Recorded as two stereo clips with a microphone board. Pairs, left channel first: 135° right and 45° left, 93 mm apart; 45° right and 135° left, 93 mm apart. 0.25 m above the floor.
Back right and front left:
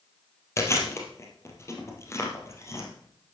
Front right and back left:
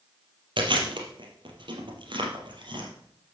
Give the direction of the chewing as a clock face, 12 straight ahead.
6 o'clock.